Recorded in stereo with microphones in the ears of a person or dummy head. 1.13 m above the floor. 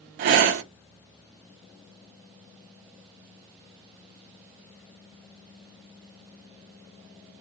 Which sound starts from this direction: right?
Breathing, at 0.2 s.